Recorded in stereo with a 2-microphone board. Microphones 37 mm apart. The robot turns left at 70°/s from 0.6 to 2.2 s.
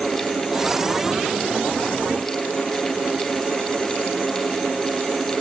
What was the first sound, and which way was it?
Only background noise.